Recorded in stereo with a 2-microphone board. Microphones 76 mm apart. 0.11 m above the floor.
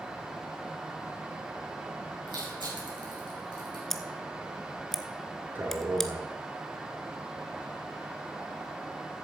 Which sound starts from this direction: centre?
Scissors, at 3.9 s.